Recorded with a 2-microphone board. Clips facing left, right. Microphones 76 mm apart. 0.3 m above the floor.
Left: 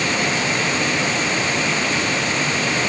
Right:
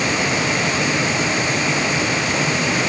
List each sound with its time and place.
Only background noise.